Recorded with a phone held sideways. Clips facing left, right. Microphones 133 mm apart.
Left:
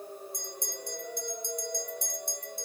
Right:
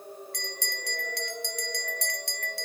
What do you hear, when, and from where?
0.3 s a bell: 80° right